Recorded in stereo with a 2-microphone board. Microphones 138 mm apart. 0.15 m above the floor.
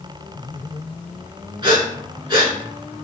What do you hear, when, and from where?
1.6 s breathing: 35° right (ahead or behind), 1.3 m